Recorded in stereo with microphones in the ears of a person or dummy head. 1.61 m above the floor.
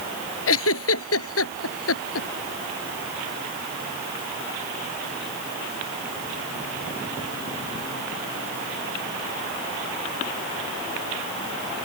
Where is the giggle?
85° left.